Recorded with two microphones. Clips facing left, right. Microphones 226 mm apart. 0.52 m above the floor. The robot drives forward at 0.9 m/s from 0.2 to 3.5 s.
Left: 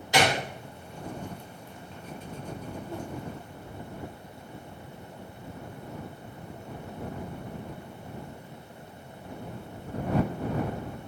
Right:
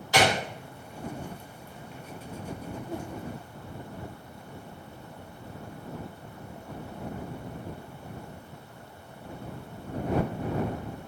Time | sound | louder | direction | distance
0.1 | a gunshot | right 1 dB | 20° left (ahead or behind) | 1.4 m
2.9 | a whoosh | right 2 dB | 30° right (ahead or behind) | 2.0 m